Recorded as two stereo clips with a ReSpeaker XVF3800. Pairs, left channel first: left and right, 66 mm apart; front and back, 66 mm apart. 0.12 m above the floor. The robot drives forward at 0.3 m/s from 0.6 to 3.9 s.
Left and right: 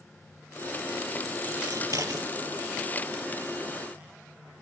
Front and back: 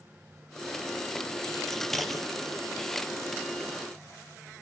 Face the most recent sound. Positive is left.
turn(degrees=-100)